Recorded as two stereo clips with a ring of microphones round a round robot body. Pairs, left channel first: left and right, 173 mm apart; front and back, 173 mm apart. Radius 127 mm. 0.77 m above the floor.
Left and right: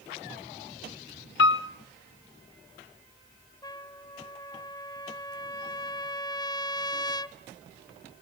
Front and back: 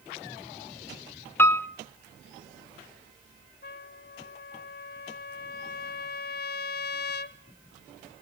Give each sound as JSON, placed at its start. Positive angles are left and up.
{"t": 1.4, "sound": "a piano", "azimuth_deg": 80, "distance_m": 1.0}
{"t": 3.6, "sound": "a trumpet", "azimuth_deg": 25, "distance_m": 1.4}